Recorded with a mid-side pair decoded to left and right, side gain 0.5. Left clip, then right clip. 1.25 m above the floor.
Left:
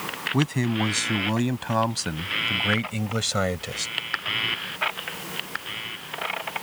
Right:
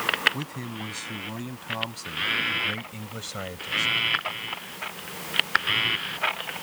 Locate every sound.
0.3 s a man speaking: 60° left